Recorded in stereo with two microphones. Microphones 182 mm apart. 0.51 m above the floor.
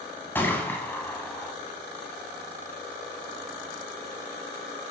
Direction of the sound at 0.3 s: 10° left (ahead or behind).